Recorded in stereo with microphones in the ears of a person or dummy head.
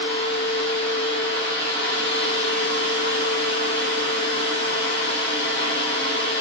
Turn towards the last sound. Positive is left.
turn(degrees=-80)